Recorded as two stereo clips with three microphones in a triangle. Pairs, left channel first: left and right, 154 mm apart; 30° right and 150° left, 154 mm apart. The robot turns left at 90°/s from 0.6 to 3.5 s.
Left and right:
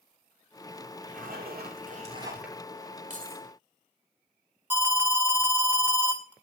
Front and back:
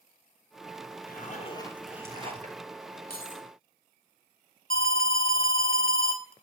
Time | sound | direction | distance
1.1 | a zipper | 50° right | 2.5 m
3.1 | keys jangling | 50° right | 1.9 m
4.7 | an alarm | 15° right | 2 m